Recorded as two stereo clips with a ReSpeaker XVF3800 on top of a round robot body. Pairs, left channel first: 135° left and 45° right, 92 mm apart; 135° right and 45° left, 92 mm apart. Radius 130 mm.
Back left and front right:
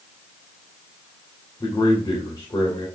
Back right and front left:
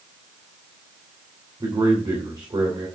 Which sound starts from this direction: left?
A man speaking, at 1.6 s.